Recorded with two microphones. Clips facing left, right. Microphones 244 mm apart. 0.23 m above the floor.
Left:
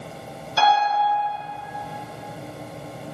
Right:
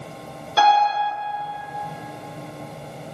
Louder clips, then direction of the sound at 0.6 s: Right 2 dB; 65° right (ahead or behind).